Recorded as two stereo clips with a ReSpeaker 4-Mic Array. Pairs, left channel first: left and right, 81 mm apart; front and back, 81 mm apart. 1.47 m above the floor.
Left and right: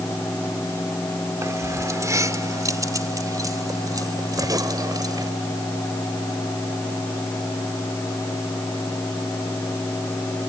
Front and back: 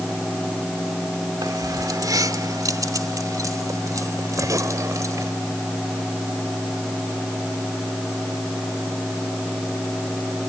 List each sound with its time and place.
1.4 s keys jangling: 145° right; by 5.3 s 130° right